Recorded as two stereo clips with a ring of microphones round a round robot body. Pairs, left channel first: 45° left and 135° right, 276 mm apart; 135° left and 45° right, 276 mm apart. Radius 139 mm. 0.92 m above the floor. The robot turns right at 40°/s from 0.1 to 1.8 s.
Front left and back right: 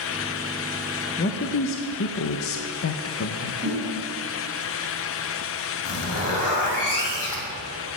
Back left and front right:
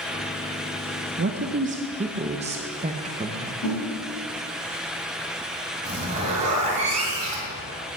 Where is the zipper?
20° left, 2.5 m.